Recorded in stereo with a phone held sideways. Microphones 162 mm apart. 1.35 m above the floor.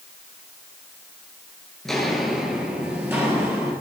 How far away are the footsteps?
About 1.6 m.